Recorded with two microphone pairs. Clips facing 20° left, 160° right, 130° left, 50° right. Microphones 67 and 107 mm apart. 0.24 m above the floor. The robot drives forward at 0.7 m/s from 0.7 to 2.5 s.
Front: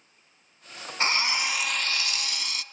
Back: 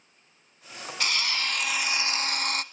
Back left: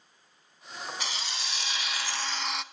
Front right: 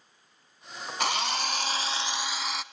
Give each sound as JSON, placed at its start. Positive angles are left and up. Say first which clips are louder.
{"t": 1.0, "sound": "a drill", "louder": "front 3 dB, front right 9 dB", "azimuth_deg": -35, "distance_m": 0.8}